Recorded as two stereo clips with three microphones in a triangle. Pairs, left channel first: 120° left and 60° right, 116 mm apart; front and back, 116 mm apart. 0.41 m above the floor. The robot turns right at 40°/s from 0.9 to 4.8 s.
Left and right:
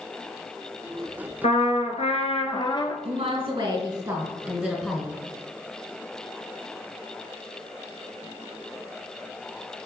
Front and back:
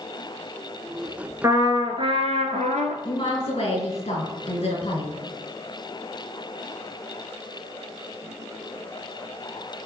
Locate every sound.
1.4 s a trumpet: 115° left, 1.1 m; by 3.0 s 175° left, 1.1 m
3.0 s a woman speaking: 50° right, 3.5 m; by 5.1 s 20° left, 3.5 m